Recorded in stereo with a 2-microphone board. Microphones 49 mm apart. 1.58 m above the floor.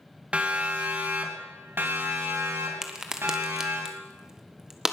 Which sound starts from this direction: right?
A siren, at 0.3 s.